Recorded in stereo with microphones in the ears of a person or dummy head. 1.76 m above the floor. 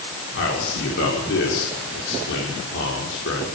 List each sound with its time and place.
0.3 s a man speaking: 75° left (ahead or behind), 6 m